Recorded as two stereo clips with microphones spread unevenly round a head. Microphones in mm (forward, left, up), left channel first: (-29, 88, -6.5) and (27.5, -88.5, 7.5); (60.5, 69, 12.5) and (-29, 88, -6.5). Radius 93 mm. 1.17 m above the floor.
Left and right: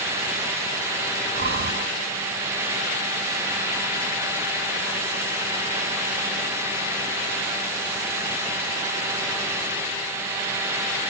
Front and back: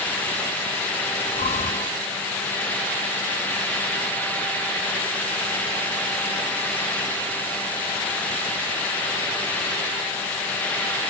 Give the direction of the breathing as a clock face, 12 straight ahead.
1 o'clock.